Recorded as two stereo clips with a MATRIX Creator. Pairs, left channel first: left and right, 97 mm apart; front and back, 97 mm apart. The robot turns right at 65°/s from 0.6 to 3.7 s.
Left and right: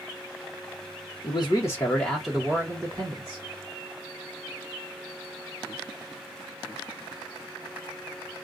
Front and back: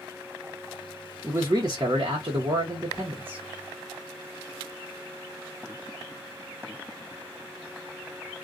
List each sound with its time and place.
1.2 s a man speaking: 115° left, 0.8 m; by 3.4 s 110° right, 0.8 m